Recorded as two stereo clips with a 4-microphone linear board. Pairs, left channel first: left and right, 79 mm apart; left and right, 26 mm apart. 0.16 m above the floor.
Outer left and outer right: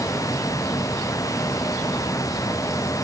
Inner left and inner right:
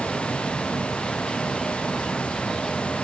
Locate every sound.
Only background noise.